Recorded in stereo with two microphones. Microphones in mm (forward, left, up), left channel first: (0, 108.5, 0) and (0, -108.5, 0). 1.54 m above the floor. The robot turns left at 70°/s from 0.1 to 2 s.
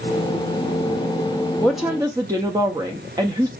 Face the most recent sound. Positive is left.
turn(degrees=-15)  # may be behind; listen again after turning